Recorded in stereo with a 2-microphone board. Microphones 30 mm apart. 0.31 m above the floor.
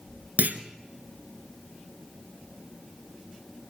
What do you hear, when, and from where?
0.4 s a clunk: 65° right (ahead or behind), 1.7 m